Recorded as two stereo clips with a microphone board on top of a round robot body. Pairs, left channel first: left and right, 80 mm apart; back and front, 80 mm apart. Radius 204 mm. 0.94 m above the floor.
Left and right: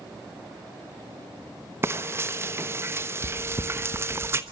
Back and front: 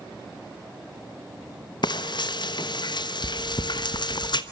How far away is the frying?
About 1.1 m.